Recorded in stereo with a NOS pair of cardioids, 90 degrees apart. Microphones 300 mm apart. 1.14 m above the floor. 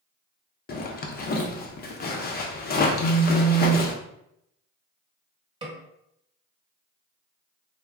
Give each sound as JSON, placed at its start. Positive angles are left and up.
{"t": 0.7, "sound": "a zipper", "azimuth_deg": 30, "distance_m": 0.6}
{"t": 3.0, "sound": "a phone buzzing", "azimuth_deg": 70, "distance_m": 0.8}
{"t": 5.6, "sound": "a snare drum", "azimuth_deg": -15, "distance_m": 0.9}